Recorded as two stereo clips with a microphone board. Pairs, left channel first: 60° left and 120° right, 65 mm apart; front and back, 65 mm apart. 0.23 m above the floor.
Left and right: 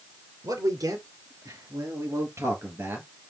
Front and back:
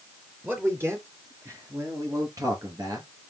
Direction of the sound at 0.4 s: 120° right.